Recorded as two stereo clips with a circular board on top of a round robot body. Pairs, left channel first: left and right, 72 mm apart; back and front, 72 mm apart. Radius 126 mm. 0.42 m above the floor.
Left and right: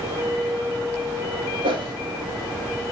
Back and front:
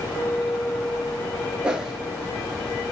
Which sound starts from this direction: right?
A whoosh, at 1.6 s.